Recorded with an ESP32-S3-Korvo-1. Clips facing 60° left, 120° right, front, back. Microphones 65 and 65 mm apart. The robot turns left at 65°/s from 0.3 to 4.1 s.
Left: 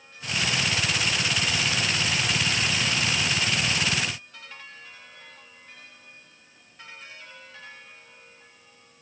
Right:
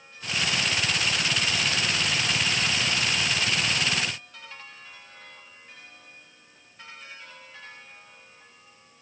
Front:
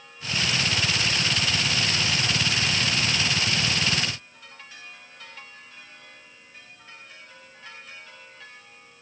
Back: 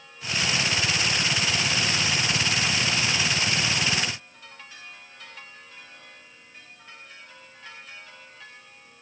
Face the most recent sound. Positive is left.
No sound to turn to.